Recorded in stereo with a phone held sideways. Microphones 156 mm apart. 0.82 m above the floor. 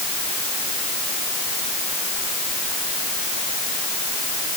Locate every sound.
Only background noise.